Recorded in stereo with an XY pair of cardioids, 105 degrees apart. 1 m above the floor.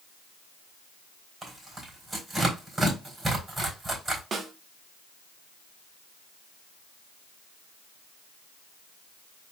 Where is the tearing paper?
25° right, 3.5 m.